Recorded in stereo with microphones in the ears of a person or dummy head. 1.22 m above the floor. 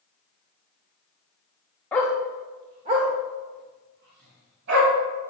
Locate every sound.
1.9 s a dog barking: 10° left (ahead or behind), 0.9 m; by 4.9 s 60° right (ahead or behind), 3 m